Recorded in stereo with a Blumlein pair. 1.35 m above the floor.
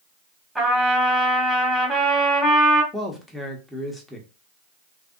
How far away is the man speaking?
About 1.1 m.